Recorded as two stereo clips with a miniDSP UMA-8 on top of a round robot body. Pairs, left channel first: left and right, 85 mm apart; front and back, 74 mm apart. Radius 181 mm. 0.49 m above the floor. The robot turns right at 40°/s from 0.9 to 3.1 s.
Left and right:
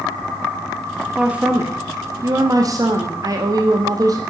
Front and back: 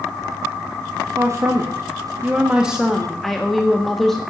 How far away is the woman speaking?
About 1.4 m.